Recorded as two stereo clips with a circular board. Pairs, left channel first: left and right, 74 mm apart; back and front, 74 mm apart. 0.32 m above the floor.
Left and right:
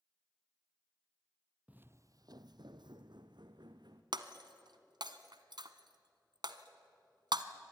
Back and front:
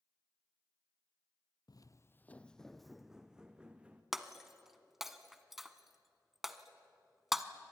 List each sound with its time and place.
1.7 s footsteps: 160° right, 0.6 m; by 4.0 s 75° right, 1.9 m
4.1 s breaking glass: 85° right, 1.0 m